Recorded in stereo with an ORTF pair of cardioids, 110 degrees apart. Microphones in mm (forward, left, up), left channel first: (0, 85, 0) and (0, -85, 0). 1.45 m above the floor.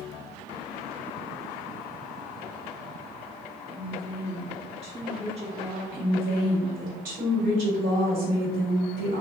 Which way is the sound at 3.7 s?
40° right.